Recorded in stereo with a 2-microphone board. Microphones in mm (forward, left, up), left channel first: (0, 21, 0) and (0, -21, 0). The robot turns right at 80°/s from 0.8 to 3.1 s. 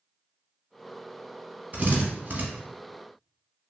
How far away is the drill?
About 0.9 m.